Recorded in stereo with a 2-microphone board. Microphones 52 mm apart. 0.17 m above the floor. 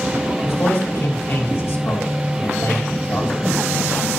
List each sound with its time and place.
0.4 s a man speaking: 60° left (ahead or behind), 4 m